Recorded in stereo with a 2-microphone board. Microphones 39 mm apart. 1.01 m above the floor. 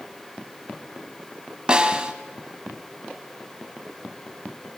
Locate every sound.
1.7 s a snare drum: 20° right (ahead or behind), 1.3 m